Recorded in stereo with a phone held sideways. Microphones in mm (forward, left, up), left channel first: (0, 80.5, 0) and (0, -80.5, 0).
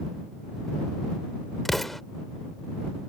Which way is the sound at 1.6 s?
Centre (ahead or behind).